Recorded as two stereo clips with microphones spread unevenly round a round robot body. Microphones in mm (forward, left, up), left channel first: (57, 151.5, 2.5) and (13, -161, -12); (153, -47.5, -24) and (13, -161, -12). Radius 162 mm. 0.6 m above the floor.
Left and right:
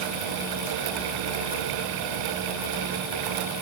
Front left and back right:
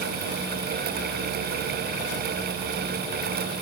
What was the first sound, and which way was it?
Only background noise.